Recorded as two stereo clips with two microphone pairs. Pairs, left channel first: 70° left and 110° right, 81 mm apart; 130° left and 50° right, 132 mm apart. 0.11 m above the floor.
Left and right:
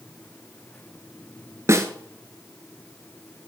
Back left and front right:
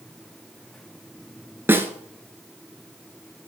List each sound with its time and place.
1.7 s a snare drum: 105° right, 0.7 m